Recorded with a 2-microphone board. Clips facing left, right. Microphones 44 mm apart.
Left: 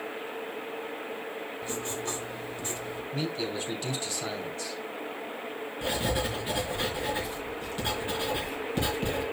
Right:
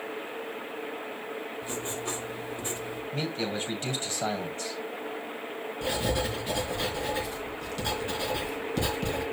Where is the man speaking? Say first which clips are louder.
Even; 40° right (ahead or behind), 3 m.